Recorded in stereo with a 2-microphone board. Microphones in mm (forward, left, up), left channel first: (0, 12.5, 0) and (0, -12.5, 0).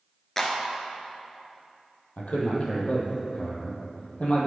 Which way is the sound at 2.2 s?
60° left (ahead or behind).